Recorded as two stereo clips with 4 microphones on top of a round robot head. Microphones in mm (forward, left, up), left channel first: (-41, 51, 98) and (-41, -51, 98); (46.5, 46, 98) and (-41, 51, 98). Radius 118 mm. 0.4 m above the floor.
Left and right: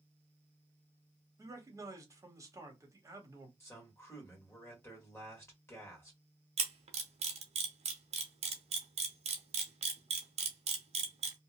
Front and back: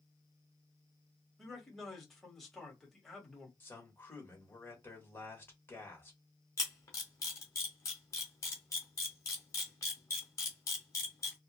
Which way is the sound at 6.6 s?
65° right.